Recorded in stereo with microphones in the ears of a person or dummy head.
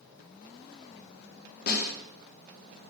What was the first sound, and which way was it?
A snare drum, 50° left (ahead or behind).